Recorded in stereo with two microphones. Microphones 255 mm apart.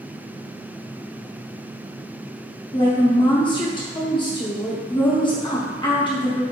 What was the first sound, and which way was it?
A woman speaking, 20° left (ahead or behind).